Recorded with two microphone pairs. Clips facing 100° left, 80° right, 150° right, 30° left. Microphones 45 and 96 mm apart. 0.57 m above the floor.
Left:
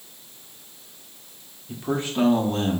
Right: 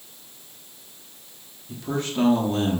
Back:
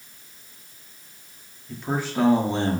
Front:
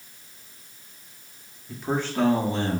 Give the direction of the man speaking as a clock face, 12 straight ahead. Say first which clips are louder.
Left 1 dB, even; 9 o'clock.